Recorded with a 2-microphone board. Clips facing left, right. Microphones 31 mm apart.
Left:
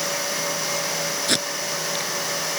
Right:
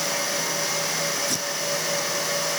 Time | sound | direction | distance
1.3 | tape being pulled | 80° left | ?